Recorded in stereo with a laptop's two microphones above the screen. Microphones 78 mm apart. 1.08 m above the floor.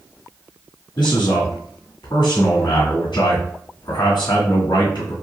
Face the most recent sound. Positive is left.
turn(degrees=85)